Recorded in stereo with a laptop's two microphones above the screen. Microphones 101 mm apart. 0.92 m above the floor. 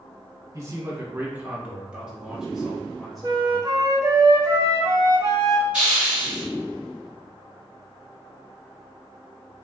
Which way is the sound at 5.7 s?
10° right (ahead or behind).